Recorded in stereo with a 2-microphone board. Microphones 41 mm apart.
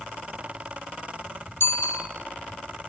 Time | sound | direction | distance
1.6 | a bicycle bell | 70° left (ahead or behind) | 4 m